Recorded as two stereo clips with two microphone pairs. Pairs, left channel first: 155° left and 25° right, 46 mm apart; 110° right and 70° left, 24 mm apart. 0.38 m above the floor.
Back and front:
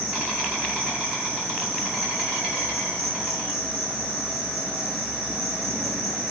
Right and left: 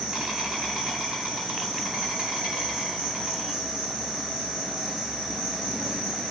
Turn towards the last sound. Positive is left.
turn(degrees=45)